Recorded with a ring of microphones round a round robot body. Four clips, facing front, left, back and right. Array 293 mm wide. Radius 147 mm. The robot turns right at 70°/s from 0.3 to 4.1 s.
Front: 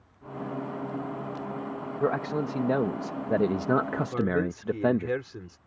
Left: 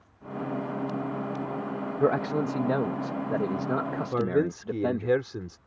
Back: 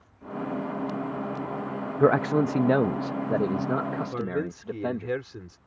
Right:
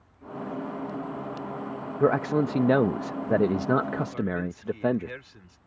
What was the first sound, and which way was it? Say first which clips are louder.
A man speaking: right 2 dB, back 7 dB; 175° right.